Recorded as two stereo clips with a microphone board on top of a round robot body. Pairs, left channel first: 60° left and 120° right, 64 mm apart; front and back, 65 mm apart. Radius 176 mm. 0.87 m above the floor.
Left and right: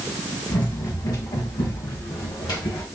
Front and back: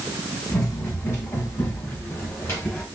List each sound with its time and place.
0.5 s running footsteps: 45° left, 3 m; by 2.9 s 55° left, 2 m